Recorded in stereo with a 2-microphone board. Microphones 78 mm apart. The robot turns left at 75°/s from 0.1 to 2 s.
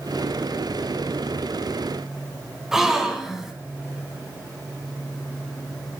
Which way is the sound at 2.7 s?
5° right (ahead or behind).